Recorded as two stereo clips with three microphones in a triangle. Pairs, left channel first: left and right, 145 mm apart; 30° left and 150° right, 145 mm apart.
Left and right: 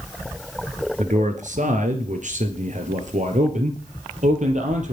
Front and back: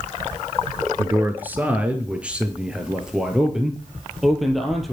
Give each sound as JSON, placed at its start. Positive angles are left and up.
{"t": 1.0, "sound": "a man speaking", "azimuth_deg": -75, "distance_m": 2.5}